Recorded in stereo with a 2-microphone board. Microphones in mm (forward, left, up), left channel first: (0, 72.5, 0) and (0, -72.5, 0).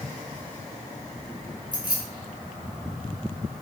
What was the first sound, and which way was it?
Keys jangling, 35° right (ahead or behind).